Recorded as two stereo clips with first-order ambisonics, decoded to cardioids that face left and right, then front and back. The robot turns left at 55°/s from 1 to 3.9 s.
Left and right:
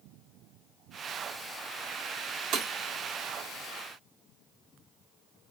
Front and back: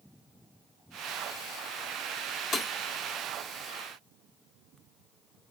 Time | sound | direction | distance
2.5 | breaking glass | 45° right | 1.8 m